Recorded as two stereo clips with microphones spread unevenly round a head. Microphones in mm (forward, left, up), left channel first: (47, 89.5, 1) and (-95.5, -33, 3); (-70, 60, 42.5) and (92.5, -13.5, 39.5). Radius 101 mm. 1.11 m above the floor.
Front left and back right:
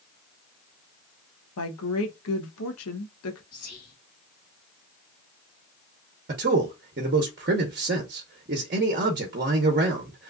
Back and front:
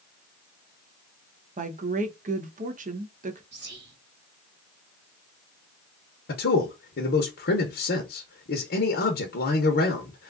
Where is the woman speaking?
20° left, 0.9 m.